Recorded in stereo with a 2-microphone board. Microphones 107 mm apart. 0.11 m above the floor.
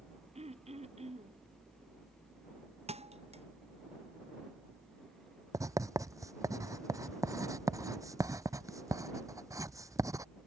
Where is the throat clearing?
85° right.